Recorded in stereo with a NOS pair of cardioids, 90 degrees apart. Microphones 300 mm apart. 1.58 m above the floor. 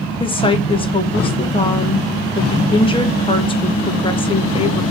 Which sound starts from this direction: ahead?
A woman speaking, at 0.2 s.